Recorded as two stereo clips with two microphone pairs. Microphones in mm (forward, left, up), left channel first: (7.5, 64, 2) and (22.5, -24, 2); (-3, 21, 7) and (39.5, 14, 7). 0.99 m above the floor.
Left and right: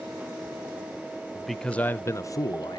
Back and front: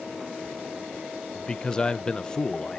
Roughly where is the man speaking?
Behind right.